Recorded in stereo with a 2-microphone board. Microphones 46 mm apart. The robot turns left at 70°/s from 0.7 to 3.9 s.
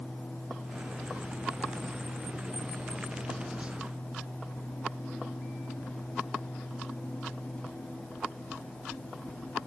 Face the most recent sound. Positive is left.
No sound to turn to.